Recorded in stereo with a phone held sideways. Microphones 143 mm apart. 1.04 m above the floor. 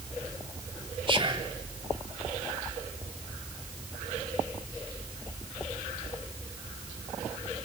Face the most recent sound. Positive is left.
turn(degrees=-40)  # may be behind; listen again after turning